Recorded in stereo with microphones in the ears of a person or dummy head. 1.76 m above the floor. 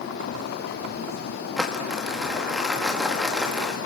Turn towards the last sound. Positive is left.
turn(degrees=0)  # may be behind; listen again after turning